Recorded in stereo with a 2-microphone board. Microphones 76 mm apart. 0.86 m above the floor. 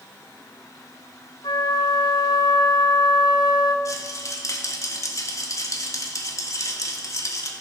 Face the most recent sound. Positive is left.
turn(degrees=45)  # may be behind; listen again after turning